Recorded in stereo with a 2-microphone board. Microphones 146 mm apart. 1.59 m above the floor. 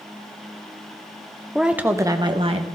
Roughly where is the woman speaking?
Centre.